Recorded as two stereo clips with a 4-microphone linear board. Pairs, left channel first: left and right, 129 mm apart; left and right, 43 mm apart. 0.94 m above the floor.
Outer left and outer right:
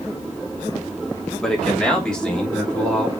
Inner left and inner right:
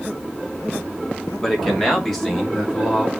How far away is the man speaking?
About 2.5 m.